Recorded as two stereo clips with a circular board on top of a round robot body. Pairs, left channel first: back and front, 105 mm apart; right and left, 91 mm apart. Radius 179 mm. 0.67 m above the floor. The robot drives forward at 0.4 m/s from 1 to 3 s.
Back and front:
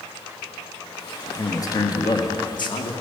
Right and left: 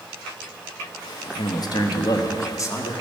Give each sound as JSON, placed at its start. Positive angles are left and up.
{"t": 1.3, "sound": "a man speaking", "azimuth_deg": -120, "distance_m": 1.0}